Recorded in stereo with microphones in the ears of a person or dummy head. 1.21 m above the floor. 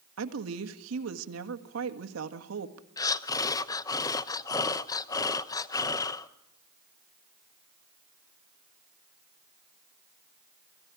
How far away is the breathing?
About 0.7 m.